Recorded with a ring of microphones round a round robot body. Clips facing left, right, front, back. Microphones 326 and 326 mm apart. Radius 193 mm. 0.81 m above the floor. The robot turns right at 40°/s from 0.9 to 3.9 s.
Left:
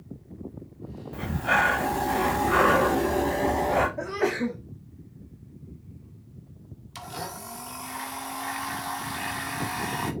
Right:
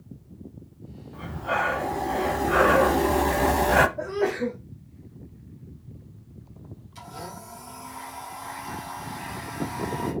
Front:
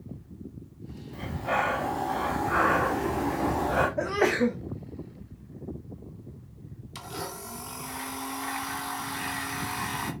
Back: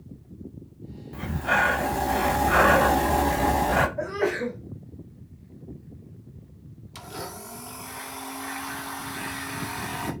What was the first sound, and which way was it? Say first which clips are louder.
Breathing: left 2 dB, back 2 dB; 115° left.